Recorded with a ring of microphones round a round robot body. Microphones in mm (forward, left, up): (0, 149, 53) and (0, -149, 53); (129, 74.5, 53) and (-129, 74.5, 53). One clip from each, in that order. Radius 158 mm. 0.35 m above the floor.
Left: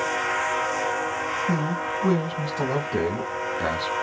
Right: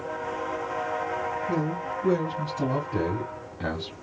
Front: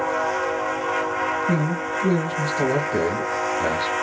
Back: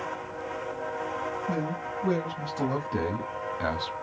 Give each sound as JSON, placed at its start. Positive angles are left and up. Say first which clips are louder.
{"t": 1.5, "sound": "a man speaking", "louder": "left 3 dB, front 7 dB", "azimuth_deg": 80, "distance_m": 2.0}